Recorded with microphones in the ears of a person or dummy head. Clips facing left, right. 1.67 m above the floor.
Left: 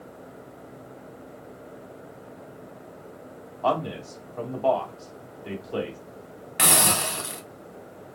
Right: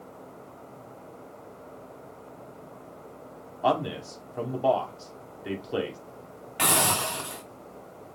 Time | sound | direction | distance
3.6 | a man speaking | 15° right (ahead or behind) | 1.4 m
6.6 | a hiss | 25° left (ahead or behind) | 0.8 m